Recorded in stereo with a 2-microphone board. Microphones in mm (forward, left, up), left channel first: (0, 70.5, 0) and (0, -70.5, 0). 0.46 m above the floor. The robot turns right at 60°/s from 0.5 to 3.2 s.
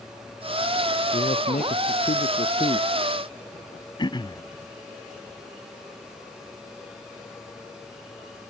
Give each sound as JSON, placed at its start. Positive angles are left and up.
{"t": 1.1, "sound": "a man speaking", "azimuth_deg": 45}
{"t": 4.0, "sound": "throat clearing", "side_deg": 35}